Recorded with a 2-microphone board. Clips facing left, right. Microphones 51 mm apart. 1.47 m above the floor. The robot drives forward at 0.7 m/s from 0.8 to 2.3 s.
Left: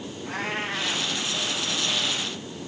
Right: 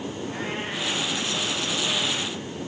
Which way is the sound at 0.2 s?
75° left (ahead or behind).